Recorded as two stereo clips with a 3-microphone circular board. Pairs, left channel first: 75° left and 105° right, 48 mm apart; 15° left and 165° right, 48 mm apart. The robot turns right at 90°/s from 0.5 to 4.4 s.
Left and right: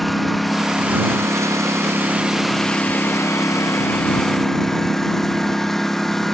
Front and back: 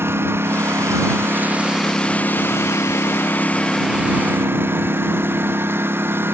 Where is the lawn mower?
160° left.